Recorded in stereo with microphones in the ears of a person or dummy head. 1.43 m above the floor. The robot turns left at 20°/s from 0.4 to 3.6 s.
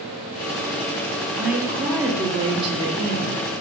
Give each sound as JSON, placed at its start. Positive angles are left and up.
{"t": 1.4, "sound": "a woman speaking", "azimuth_deg": 0, "distance_m": 0.7}